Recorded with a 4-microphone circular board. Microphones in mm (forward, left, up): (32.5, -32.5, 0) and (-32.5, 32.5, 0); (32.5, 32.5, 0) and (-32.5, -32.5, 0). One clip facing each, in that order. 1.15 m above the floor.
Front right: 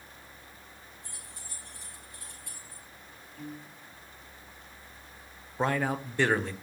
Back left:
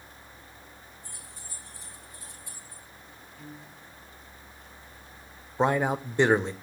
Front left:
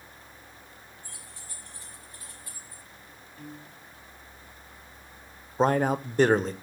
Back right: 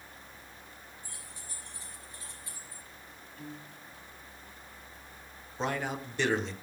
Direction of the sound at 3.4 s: 35° right.